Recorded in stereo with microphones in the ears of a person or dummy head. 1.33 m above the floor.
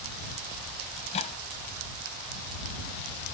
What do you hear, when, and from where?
1.0 s a microwave: 30° left (ahead or behind)